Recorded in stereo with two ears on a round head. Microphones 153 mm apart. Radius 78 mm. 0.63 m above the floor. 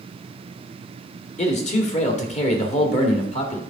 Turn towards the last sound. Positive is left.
turn(degrees=40)  # may be behind; listen again after turning